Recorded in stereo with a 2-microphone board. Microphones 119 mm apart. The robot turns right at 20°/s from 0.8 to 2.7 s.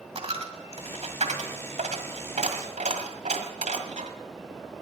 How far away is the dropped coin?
About 1.7 m.